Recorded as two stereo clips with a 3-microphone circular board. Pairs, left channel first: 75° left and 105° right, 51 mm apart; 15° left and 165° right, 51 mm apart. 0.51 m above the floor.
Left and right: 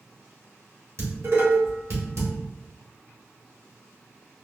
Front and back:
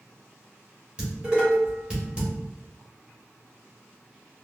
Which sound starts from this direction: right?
Dishes clattering, at 1.0 s.